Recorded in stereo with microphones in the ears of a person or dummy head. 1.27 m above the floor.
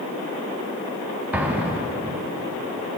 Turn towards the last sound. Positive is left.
turn(degrees=-10)  # may be behind; listen again after turning